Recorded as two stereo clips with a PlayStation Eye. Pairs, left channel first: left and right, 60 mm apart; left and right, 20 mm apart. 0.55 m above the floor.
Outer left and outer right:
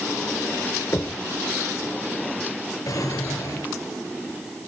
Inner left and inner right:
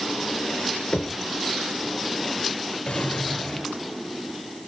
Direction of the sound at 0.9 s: 50° left (ahead or behind).